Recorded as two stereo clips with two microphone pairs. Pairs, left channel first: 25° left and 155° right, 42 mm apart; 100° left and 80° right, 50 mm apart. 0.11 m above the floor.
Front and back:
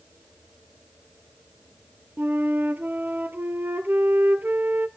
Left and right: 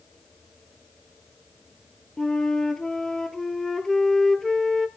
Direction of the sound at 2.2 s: Straight behind.